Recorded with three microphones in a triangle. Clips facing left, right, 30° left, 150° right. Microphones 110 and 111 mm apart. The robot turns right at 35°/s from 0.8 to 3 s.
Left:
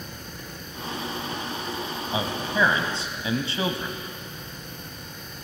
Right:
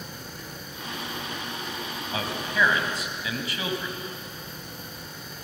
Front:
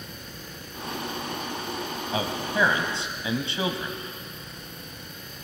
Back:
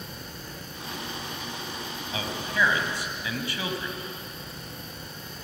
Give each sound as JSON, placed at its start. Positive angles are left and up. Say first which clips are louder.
{"t": 2.1, "sound": "a man speaking", "louder": "left 2 dB, front 3 dB", "azimuth_deg": 35, "distance_m": 1.5}